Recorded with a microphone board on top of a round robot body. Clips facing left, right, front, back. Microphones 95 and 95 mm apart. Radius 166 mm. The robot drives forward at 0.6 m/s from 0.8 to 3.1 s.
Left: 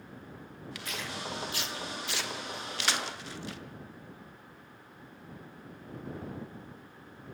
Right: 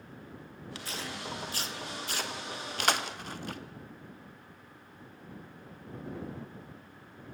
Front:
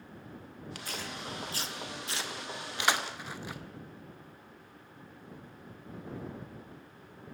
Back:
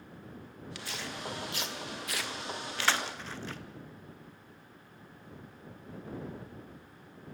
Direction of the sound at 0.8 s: 35° right.